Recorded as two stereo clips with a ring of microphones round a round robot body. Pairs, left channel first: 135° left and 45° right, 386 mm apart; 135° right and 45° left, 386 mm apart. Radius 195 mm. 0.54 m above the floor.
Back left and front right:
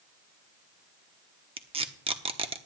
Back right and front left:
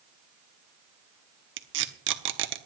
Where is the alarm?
I don't hear an alarm.